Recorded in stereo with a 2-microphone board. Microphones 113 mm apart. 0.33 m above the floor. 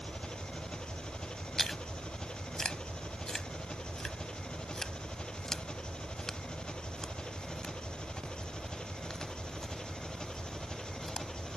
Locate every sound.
0.0 s an engine running: 10° left (ahead or behind)
1.6 s chewing: 5° left (ahead or behind)